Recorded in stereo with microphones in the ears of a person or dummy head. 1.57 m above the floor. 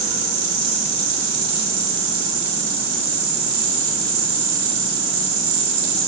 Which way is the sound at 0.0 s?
50° right (ahead or behind).